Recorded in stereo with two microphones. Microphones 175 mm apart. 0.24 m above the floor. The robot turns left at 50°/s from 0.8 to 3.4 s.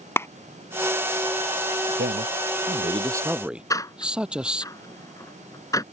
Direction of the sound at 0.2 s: 15° left (ahead or behind).